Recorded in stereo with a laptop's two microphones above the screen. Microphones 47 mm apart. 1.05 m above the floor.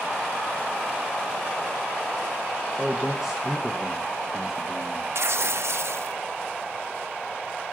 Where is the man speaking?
10° right (ahead or behind), 1.3 m.